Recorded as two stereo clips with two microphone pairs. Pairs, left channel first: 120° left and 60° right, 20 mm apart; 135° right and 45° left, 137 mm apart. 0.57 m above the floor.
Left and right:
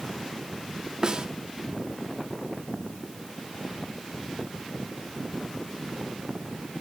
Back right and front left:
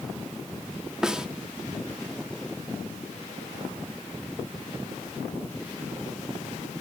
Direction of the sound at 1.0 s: 40° right.